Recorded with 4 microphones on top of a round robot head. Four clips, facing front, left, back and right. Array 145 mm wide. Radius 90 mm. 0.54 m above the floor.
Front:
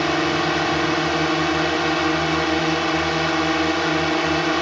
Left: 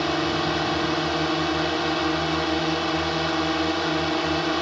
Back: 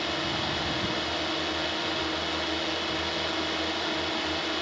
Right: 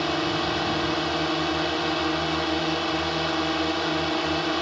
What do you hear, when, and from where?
0.0 s a drone: 5° left